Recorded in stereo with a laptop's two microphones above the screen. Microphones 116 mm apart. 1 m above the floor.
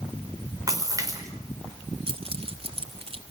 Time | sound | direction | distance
0.7 | a splash | 30° right (ahead or behind) | 5 m
2.1 | keys jangling | 55° right (ahead or behind) | 2.5 m